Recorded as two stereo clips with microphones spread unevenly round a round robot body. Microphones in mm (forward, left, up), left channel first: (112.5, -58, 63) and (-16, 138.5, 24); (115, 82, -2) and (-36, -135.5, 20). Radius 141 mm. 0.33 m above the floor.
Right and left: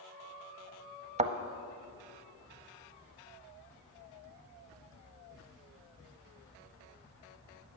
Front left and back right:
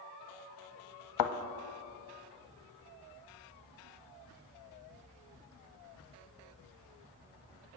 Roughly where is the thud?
Ahead left.